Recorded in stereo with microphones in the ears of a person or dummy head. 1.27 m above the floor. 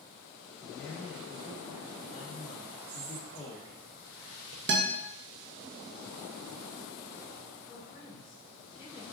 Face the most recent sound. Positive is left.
turn(degrees=25)  # may be behind; listen again after turning